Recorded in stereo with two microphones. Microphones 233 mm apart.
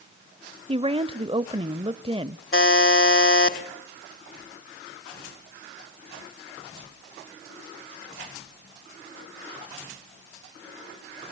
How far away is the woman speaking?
About 0.9 m.